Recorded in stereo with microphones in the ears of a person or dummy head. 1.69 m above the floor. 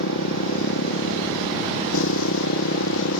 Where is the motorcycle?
70° left (ahead or behind).